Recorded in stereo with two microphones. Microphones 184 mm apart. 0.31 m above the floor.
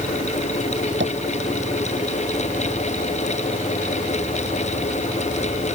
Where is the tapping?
85° right.